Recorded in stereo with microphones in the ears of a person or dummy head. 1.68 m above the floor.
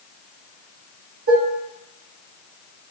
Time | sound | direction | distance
1.3 | dishes clattering | 50° right (ahead or behind) | 1.3 m